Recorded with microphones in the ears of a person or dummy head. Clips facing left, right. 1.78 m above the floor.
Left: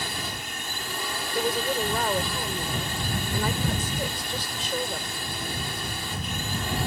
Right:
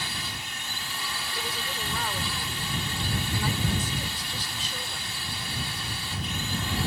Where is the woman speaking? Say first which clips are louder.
Left 12 dB; 55° left (ahead or behind).